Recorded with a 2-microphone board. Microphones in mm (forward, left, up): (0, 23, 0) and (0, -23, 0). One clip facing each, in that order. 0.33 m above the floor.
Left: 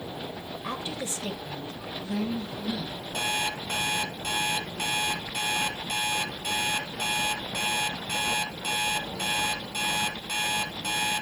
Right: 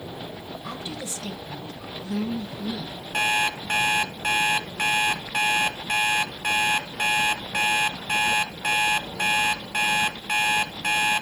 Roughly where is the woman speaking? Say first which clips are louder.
Left 2 dB; left.